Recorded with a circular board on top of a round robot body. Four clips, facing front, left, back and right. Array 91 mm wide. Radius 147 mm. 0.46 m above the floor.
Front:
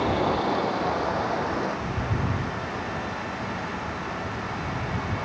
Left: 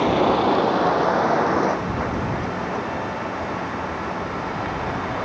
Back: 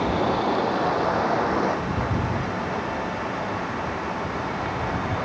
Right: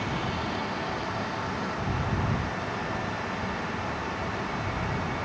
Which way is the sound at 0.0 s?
85° left.